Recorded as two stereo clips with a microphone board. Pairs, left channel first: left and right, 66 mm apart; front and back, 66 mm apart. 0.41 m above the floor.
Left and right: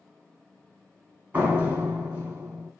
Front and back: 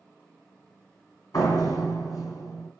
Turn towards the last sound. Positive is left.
turn(degrees=-25)